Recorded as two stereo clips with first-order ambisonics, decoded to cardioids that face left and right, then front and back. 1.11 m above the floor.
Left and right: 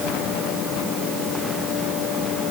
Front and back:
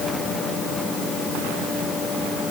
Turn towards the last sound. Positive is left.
No sound to turn to.